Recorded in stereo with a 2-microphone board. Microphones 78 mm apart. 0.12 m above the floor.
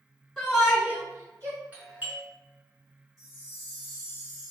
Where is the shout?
5° left (ahead or behind), 1.4 m; by 1.6 s 40° right (ahead or behind), 2 m.